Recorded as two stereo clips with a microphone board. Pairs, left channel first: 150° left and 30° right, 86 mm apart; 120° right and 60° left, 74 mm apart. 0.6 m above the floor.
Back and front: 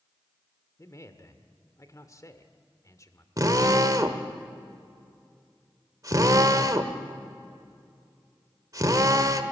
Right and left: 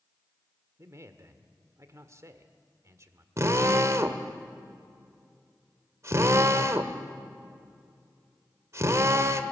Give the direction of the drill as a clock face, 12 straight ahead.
12 o'clock.